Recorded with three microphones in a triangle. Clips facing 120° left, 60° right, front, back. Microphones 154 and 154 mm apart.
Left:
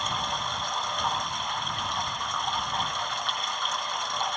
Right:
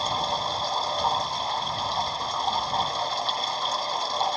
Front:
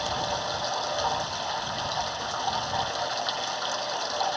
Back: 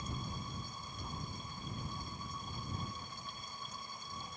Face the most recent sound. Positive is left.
turn(degrees=0)